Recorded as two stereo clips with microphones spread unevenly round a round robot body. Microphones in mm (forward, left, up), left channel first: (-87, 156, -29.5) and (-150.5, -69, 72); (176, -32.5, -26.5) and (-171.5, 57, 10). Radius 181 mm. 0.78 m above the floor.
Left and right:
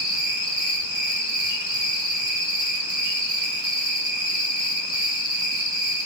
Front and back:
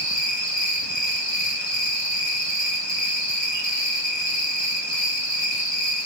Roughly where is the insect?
Ahead right.